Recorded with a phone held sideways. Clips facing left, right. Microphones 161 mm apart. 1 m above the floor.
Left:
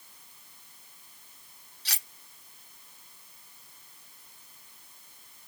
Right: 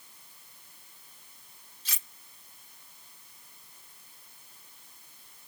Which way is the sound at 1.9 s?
80° left.